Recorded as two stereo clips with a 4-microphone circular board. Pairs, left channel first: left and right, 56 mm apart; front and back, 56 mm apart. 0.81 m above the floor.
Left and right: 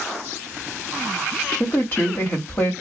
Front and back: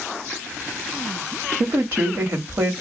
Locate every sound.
1.6 s a woman speaking: 140° left, 1.2 m